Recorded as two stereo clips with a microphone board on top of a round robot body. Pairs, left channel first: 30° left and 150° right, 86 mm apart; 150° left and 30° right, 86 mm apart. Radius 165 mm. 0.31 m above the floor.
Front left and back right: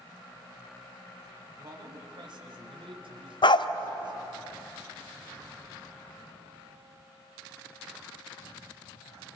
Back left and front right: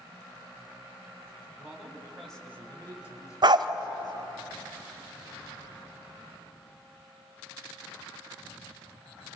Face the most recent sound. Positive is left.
turn(degrees=5)